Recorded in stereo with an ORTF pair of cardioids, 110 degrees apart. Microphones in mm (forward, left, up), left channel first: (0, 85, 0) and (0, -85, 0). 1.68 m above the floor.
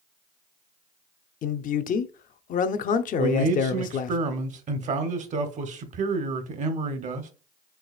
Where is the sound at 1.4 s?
50° left, 0.6 m.